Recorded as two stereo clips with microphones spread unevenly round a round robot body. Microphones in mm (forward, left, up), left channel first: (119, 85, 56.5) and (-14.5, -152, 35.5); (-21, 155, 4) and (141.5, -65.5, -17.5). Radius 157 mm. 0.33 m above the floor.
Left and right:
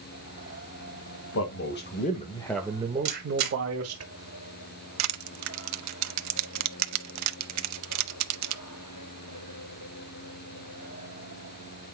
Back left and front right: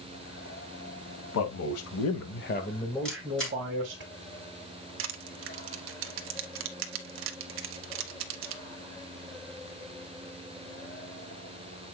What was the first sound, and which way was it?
A man speaking, 105° left.